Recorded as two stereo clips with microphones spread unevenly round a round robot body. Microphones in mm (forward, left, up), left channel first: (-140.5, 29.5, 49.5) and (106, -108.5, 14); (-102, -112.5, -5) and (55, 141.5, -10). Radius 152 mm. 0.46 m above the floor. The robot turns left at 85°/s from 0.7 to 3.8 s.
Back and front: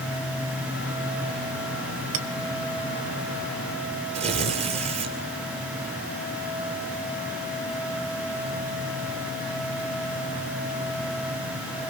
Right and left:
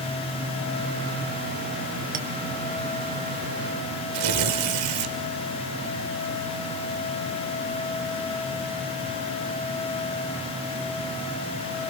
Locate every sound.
2.1 s a clink: 5° right, 1.1 m; by 2.3 s 15° right, 1.1 m
4.1 s tearing paper: 40° left, 2.5 m